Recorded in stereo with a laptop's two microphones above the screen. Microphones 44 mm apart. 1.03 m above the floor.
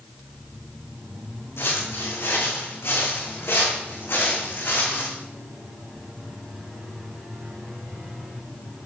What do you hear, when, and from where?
1.6 s footsteps: 75° left (ahead or behind), 4.5 m; by 5.1 s 50° left (ahead or behind), 4.5 m